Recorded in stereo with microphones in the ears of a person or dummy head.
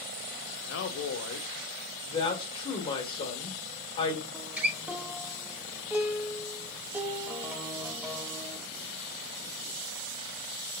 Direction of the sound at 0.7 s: 65° left (ahead or behind).